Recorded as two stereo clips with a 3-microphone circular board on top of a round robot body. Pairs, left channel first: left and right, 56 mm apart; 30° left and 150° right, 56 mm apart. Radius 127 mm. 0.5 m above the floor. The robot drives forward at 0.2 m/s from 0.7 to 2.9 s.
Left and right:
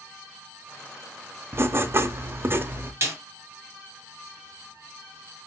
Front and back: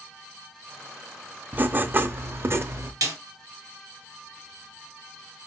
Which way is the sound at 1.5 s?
100° right.